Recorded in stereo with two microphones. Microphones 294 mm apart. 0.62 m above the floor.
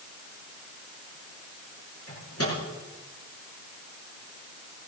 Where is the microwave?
55° left (ahead or behind), 7 m.